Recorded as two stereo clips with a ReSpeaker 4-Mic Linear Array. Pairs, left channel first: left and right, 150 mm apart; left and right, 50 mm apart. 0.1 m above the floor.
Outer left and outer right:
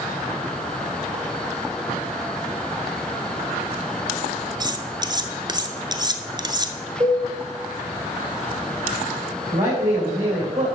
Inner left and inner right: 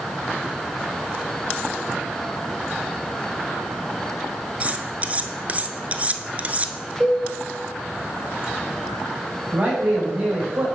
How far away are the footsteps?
No footsteps in this recording.